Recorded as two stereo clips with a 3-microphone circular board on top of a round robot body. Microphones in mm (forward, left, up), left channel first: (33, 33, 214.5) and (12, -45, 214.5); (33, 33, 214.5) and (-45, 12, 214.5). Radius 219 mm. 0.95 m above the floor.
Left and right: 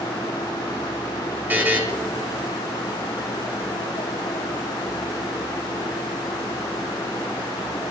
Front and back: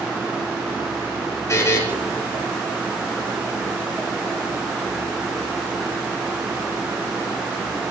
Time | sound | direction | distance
1.5 | a buzzer | 35° right | 6 m